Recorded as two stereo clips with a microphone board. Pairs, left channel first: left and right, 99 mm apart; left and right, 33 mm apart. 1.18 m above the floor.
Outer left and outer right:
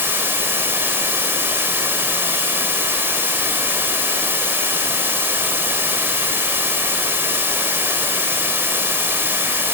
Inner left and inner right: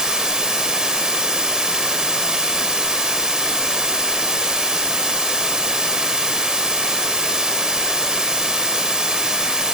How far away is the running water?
About 3.5 m.